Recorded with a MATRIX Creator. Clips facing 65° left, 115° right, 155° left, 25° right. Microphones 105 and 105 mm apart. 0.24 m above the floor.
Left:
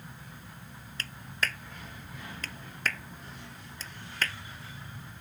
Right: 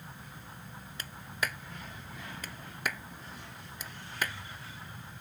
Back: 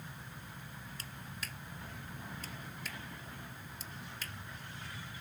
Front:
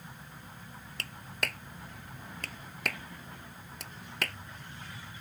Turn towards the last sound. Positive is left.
turn(degrees=-35)